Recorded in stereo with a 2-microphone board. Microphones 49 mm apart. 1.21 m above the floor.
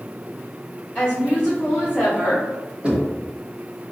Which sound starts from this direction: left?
A woman speaking, at 0.9 s.